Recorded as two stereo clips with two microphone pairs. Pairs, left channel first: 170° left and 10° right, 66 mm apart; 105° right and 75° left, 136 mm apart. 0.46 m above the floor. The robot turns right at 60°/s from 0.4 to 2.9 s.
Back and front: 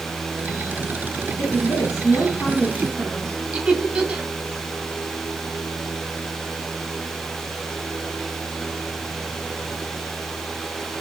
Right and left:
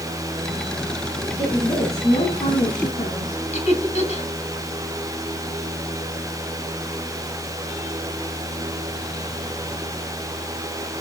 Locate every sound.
1.4 s a woman speaking: 160° left, 4.5 m; by 3.4 s 105° right, 4.5 m
3.5 s laughter: 80° right, 2.5 m